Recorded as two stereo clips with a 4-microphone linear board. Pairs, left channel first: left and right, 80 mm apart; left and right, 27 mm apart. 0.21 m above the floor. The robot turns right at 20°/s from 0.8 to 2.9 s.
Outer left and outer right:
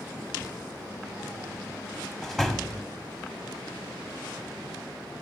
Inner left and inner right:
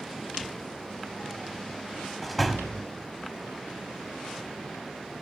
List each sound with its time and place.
2.2 s a door slam: 5° left (ahead or behind), 0.9 m; by 2.9 s centre (ahead or behind), 0.9 m